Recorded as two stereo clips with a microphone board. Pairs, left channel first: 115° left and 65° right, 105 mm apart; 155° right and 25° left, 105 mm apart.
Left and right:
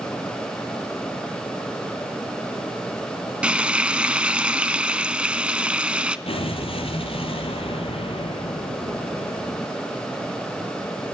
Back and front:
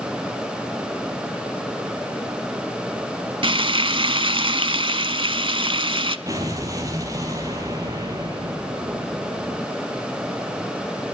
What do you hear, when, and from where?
3.4 s frying: 10° left, 0.6 m
6.3 s an explosion: 80° left, 3 m